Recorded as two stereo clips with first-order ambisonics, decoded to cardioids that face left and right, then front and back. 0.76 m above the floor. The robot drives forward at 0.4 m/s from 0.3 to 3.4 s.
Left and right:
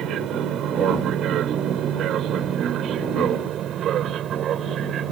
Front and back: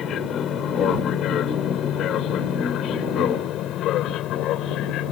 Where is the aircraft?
50° right; by 5.1 s 40° right.